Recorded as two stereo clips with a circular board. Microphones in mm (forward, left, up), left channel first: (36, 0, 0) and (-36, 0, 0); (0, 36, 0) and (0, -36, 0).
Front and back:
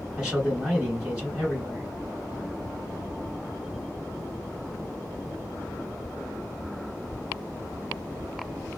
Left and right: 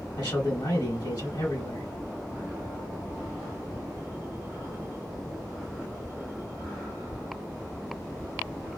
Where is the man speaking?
105° left, 1.9 m.